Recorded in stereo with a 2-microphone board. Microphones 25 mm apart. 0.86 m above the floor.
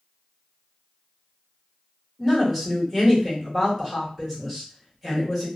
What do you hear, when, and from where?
2.2 s a woman speaking: centre (ahead or behind), 1.3 m